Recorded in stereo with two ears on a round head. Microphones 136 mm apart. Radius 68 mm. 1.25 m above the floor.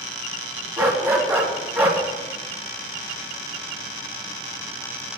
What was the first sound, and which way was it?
A dog barking, 10° right (ahead or behind).